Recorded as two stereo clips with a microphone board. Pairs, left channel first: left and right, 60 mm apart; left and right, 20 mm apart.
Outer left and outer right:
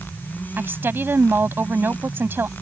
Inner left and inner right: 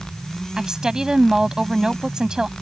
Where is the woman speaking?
40° right (ahead or behind).